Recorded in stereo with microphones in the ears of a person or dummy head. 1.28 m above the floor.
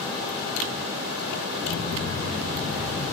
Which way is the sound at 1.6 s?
55° left (ahead or behind).